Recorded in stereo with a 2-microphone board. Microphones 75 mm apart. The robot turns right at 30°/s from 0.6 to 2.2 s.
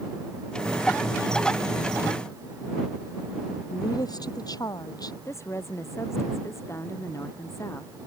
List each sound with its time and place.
3.7 s a woman speaking: 60° left (ahead or behind)
5.2 s a woman speaking: 40° left (ahead or behind)